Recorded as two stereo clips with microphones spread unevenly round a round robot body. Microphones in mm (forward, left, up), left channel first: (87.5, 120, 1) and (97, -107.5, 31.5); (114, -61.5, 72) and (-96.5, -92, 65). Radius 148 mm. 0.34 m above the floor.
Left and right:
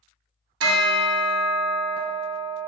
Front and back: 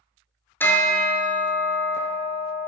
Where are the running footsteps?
No running footsteps in this recording.